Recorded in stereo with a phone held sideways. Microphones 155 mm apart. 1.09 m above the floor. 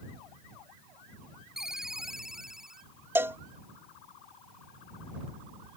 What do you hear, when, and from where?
1.6 s a ringtone: 5° right (ahead or behind)
3.1 s a cowbell: 15° right (ahead or behind)